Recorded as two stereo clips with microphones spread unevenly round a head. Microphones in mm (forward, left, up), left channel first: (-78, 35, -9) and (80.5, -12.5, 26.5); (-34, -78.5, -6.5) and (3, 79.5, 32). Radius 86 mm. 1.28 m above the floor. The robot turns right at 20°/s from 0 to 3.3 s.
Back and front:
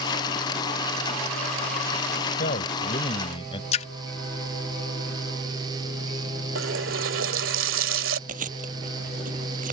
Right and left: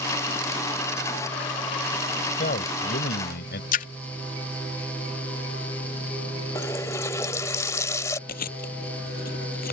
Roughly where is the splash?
Behind right.